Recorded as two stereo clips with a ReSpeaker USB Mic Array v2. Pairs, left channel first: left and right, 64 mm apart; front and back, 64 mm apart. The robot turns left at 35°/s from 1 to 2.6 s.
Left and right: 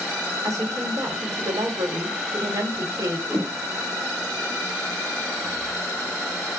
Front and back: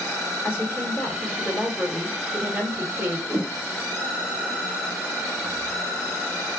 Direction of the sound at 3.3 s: 155° left.